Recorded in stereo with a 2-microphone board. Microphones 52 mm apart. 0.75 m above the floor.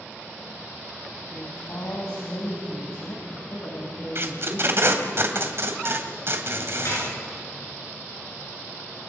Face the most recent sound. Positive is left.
turn(degrees=60)  # may be behind; listen again after turning